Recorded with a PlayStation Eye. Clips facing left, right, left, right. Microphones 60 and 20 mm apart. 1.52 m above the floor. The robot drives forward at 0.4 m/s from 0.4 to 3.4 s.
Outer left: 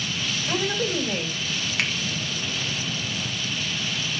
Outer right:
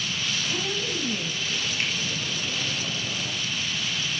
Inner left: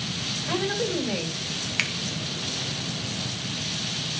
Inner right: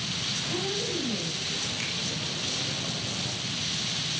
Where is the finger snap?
75° left (ahead or behind), 1.5 m; by 1.9 s 80° left, 1.5 m.